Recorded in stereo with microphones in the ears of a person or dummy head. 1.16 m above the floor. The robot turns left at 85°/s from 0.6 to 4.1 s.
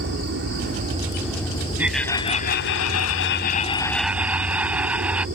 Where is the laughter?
170° right; by 5.2 s 5° right.